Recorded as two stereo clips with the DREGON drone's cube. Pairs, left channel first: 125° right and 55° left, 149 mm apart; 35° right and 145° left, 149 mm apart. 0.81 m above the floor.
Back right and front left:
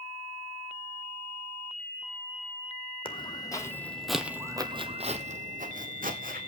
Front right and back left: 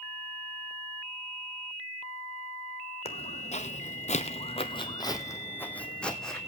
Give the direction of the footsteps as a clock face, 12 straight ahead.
2 o'clock.